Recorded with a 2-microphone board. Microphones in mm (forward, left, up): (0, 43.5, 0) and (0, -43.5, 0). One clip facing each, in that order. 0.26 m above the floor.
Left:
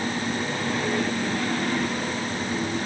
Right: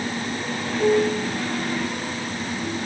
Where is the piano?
60° right (ahead or behind).